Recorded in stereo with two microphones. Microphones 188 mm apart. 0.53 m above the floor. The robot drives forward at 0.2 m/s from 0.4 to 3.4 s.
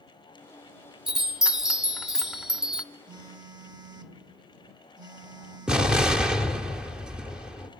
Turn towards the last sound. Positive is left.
turn(degrees=-5)  # may be behind; listen again after turning